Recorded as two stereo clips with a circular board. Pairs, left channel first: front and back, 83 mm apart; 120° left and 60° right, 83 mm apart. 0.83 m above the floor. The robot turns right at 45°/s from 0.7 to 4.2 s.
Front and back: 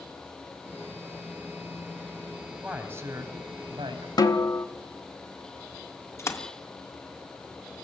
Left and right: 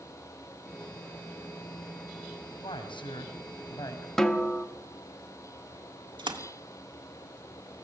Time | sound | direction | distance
2.6 | a man speaking | 100° left | 5 m
4.2 | a snare drum | 35° left | 1.4 m
6.2 | a splash | 55° right | 2 m